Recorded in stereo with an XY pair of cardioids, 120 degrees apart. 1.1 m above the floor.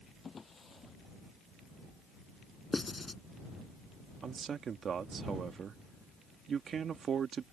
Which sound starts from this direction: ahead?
Writing, at 2.7 s.